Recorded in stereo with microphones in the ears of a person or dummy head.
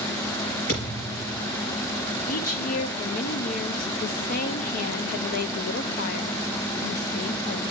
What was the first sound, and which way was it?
A thud, 50° left (ahead or behind).